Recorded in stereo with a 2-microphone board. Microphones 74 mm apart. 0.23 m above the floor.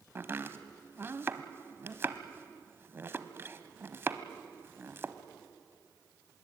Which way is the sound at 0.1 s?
30° right (ahead or behind).